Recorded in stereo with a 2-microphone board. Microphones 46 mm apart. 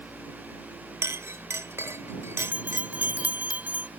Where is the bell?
35° right (ahead or behind).